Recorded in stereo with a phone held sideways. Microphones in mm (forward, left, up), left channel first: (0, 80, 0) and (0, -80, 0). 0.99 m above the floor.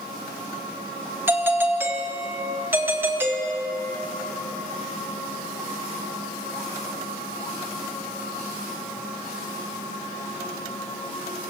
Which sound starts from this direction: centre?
A doorbell, at 1.3 s.